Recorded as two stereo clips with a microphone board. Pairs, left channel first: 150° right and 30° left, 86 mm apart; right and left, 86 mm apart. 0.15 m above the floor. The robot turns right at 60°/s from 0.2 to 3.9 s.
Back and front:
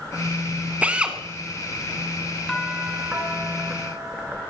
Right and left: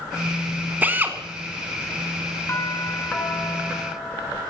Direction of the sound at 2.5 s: 70° right.